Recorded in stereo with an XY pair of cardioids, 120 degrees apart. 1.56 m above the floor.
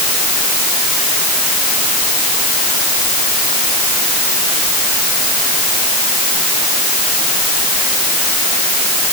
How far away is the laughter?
I don't hear laughter.